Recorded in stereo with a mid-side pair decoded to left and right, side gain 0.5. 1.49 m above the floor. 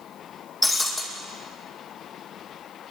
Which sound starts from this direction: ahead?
Breaking glass, at 0.6 s.